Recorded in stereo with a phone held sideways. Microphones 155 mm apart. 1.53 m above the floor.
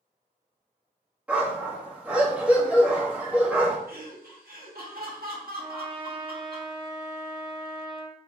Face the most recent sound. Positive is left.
turn(degrees=-35)  # may be behind; listen again after turning